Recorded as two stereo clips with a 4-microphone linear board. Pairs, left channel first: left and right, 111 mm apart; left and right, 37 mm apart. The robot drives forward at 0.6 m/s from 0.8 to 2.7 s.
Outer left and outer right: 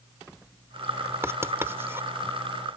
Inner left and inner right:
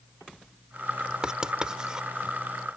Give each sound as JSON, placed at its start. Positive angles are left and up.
{"t": 1.2, "sound": "writing", "side_deg": -25}